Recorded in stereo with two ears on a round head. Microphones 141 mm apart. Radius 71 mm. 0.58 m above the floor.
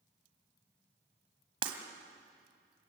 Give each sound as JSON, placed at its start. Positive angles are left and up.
{"t": 1.6, "sound": "breaking glass", "side_deg": -35, "distance_m": 2.0}